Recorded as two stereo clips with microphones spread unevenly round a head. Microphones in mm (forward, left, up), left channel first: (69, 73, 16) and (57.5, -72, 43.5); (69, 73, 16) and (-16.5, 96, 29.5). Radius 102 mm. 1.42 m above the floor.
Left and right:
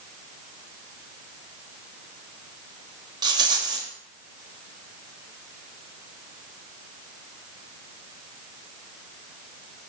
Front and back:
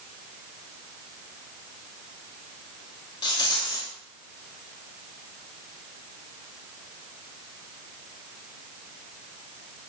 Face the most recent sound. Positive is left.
turn(degrees=-60)